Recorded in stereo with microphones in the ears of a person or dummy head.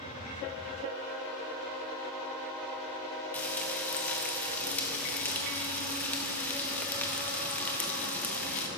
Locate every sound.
3.3 s frying: 10° left (ahead or behind), 0.6 m